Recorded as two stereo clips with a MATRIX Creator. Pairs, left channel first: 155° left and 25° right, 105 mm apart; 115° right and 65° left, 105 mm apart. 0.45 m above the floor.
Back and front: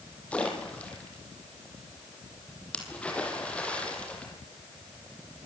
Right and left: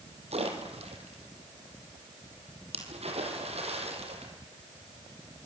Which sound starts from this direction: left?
A splash, at 0.3 s.